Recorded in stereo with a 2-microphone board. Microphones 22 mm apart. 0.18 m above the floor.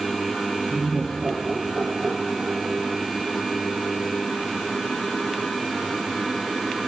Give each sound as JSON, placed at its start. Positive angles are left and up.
{"t": 0.7, "sound": "laughter", "side_deg": -55, "distance_m": 3.5}